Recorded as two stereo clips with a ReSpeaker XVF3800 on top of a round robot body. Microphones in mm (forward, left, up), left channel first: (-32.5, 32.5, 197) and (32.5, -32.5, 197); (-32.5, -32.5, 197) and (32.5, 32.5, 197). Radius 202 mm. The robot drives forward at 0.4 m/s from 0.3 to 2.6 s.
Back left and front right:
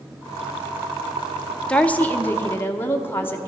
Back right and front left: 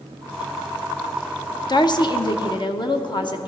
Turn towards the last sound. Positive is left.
turn(degrees=-165)